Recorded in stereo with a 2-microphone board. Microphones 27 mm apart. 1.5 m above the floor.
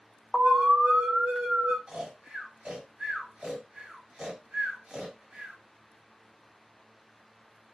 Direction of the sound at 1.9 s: 45° right (ahead or behind).